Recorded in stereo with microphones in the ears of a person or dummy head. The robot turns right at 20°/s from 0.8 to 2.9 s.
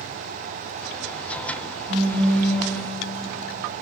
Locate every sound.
1.9 s a phone buzzing: 70° right (ahead or behind), 1.6 m; by 2.7 s 55° right (ahead or behind), 1.6 m